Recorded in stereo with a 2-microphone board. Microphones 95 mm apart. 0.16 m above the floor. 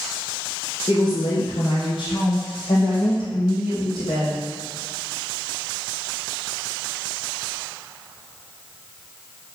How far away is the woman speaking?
About 2.5 m.